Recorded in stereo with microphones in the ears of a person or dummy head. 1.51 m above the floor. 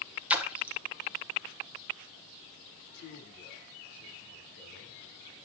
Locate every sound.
0.3 s a splash: 5° right (ahead or behind), 1.3 m
2.9 s a man speaking: 60° left (ahead or behind), 3 m